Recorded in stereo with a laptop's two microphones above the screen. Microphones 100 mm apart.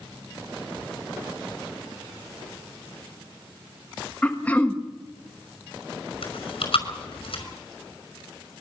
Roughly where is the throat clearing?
Centre.